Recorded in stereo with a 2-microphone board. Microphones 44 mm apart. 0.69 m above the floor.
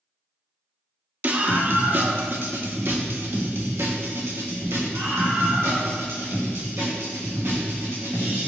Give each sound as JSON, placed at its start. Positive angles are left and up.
{"t": 1.2, "sound": "a scream", "side_deg": -40, "distance_m": 1.5}